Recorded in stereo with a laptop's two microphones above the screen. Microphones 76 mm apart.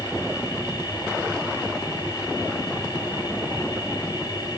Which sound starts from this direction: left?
A machine running, at 0.0 s.